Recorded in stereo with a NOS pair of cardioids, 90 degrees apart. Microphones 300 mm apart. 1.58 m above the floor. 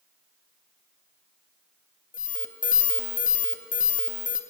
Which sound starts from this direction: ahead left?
An alarm, at 2.1 s.